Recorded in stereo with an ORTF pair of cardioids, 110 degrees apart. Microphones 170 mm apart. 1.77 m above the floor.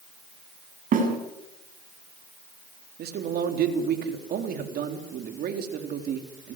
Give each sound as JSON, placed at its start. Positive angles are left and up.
{"t": 0.9, "sound": "a snare drum", "azimuth_deg": -55, "distance_m": 7.5}
{"t": 3.0, "sound": "a man speaking", "azimuth_deg": -60, "distance_m": 4.0}